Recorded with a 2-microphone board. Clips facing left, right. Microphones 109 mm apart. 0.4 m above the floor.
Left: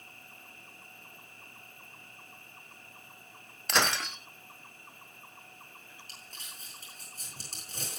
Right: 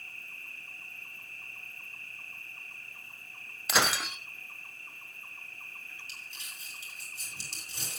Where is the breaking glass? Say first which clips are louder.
Even; 5° right (ahead or behind), 1.4 m.